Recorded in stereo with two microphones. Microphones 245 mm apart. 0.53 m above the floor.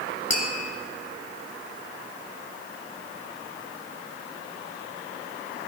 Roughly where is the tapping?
Left.